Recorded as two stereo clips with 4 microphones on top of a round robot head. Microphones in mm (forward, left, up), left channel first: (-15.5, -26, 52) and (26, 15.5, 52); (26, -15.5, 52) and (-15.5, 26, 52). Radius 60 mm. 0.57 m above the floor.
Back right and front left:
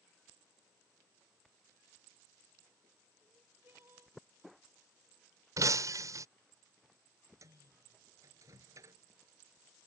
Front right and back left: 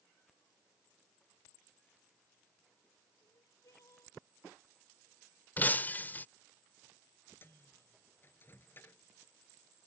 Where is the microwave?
10° left.